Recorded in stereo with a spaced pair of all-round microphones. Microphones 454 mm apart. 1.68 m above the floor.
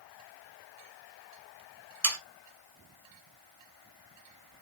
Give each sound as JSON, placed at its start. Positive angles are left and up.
{"t": 2.0, "sound": "sawing", "side_deg": -35, "distance_m": 1.6}